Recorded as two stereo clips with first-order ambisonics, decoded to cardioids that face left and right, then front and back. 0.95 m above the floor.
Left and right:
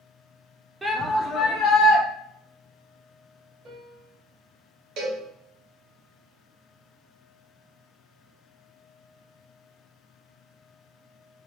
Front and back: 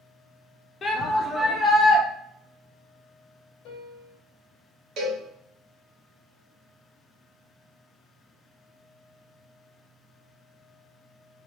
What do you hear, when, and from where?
0.8 s a shout: 20° right, 0.6 m; by 2.0 s 85° left, 1.0 m
3.6 s a piano: 30° right, 1.0 m
5.0 s a cowbell: 130° right, 1.3 m